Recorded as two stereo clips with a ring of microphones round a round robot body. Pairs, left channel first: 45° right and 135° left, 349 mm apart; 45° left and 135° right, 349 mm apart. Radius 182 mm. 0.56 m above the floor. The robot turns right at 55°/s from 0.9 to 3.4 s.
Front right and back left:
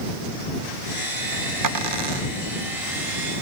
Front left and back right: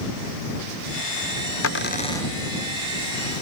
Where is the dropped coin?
95° left; by 2.3 s 135° left.